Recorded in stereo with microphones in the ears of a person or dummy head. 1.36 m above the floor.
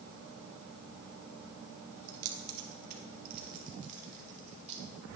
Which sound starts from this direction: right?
Keys jangling, at 2.1 s.